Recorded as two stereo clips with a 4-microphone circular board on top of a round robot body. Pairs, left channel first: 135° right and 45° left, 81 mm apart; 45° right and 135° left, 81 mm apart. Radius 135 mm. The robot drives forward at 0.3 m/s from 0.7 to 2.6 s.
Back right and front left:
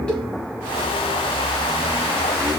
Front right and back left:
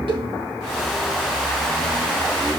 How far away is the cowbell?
About 4.5 m.